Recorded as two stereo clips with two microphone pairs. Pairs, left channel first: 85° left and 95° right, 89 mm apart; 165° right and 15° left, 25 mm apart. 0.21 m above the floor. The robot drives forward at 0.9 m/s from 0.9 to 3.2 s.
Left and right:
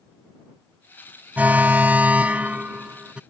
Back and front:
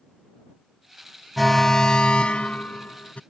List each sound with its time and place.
1.4 s an alarm: 75° right; by 3.2 s 170° right